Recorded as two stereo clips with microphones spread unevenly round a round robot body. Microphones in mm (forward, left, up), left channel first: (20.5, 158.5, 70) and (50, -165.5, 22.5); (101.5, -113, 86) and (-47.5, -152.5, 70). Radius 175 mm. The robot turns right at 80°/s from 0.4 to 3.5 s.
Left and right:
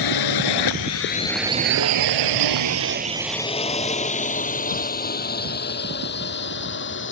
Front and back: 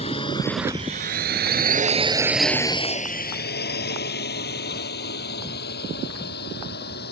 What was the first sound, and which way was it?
A drone, 80° left.